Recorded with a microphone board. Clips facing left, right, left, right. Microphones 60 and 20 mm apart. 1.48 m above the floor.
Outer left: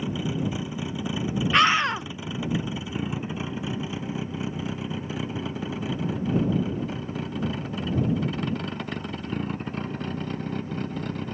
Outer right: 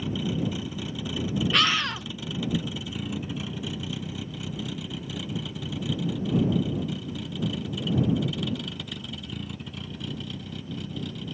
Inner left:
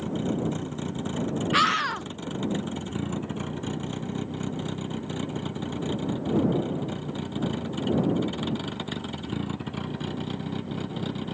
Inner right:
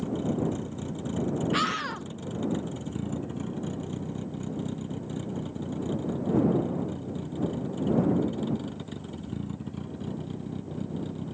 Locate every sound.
0.0 s a vehicle: 20° left (ahead or behind); by 11.3 s 45° left (ahead or behind)
1.5 s a scream: 25° left (ahead or behind)